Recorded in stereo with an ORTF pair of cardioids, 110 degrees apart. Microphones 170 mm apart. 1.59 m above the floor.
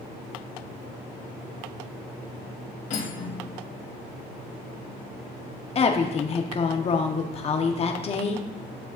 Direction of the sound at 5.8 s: 35° left.